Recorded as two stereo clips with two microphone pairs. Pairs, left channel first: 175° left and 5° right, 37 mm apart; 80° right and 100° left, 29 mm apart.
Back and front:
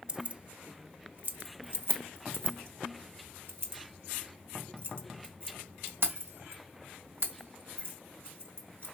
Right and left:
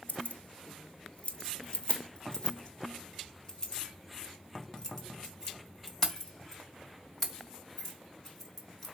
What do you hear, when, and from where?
0.1 s keys jangling: 70° right, 0.8 m; by 9.0 s 5° right, 5 m